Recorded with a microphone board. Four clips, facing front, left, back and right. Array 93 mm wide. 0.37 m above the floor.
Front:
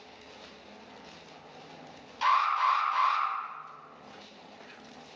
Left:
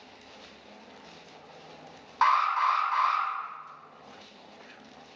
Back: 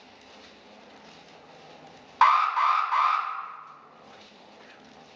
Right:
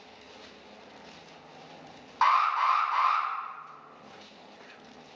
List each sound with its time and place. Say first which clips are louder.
2.2 s an alarm: even, back 5 dB; straight behind, 1.9 m